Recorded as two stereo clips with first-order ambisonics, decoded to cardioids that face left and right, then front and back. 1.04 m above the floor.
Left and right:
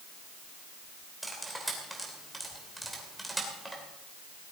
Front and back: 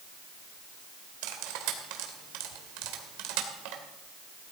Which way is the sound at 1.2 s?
Straight behind.